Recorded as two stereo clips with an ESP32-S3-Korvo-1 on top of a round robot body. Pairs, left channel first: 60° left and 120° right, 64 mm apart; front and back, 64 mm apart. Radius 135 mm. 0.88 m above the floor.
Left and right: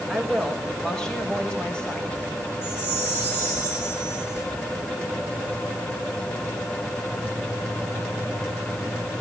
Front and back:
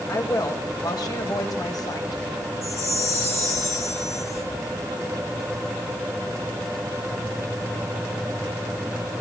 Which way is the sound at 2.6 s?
50° right.